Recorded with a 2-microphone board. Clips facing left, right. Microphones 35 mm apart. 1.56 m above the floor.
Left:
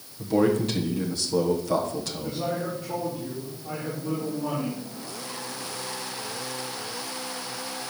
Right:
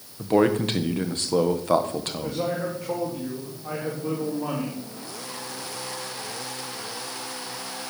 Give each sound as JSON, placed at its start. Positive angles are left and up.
{"t": 0.2, "sound": "a man speaking", "side_deg": -50, "distance_m": 1.3}
{"t": 2.2, "sound": "a man speaking", "side_deg": -85, "distance_m": 3.5}